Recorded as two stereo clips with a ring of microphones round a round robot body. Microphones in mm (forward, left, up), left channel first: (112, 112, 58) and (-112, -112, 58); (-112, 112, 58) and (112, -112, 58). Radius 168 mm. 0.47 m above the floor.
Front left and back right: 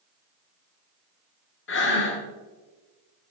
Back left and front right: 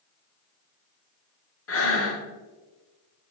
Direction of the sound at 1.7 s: 95° left.